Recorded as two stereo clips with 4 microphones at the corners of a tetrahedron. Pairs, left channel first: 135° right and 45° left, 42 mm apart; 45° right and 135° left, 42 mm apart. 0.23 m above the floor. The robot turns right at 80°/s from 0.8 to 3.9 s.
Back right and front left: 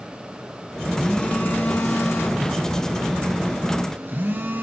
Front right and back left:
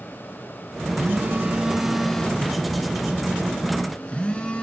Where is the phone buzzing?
140° left, 3 m; by 4.6 s 15° left, 3 m.